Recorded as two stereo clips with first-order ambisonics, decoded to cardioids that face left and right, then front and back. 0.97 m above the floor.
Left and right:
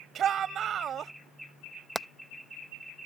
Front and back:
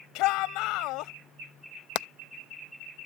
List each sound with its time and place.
0.1 s a shout: 30° right
1.9 s hammering: 5° right